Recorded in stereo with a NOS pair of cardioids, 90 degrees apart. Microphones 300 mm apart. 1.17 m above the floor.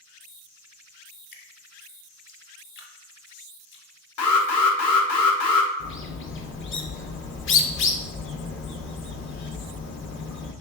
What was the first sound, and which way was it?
Dripping, 40° left.